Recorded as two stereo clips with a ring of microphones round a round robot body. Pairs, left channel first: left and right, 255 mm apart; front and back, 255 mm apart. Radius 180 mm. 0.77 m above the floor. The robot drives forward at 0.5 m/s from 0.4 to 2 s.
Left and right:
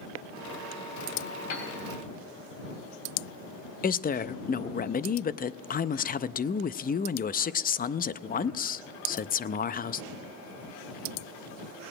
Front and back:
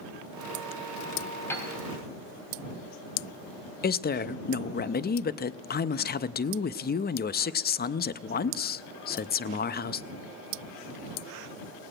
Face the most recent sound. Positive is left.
turn(degrees=40)